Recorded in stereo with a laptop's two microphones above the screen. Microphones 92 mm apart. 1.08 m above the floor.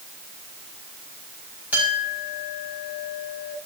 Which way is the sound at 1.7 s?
15° right (ahead or behind).